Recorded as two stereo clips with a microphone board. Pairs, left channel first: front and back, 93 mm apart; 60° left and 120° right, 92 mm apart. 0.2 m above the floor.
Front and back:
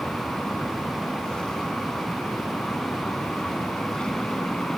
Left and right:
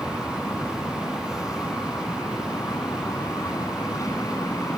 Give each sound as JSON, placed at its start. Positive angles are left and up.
{"t": 0.0, "sound": "an aircraft", "azimuth_deg": 75}